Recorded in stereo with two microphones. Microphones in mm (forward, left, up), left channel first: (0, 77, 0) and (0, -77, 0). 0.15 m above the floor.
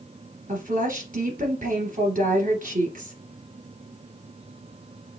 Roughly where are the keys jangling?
No keys jangling in this recording.